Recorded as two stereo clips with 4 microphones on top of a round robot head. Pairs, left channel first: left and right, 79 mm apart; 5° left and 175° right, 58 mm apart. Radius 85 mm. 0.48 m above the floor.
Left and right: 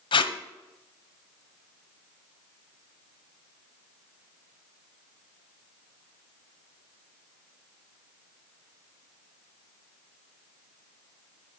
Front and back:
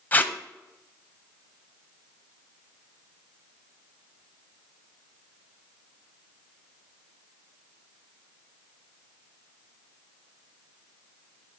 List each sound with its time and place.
0.1 s tape being pulled: 70° left, 0.9 m